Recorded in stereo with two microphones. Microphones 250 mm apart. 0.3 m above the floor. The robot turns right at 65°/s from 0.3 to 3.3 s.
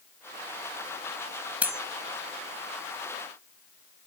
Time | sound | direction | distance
1.6 | cutlery clinking | 5° right (ahead or behind) | ?